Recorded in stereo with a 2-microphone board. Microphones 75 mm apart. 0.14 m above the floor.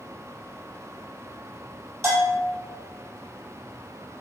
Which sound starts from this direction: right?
A bell, at 2.0 s.